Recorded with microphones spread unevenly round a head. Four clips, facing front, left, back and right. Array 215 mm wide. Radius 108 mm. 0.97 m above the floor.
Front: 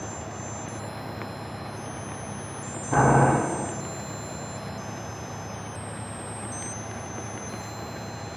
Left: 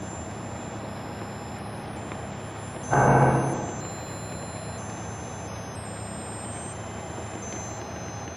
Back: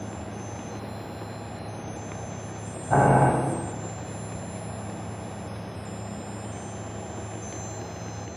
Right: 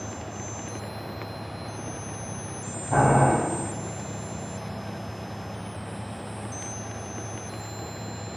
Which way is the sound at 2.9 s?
170° left.